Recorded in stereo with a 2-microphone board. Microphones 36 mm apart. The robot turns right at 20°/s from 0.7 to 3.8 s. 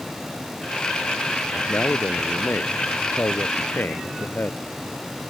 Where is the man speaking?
55° left; by 4.6 s 105° left.